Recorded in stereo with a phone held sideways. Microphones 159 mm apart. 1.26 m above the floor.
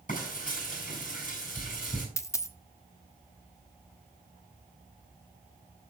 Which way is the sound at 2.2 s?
20° left (ahead or behind).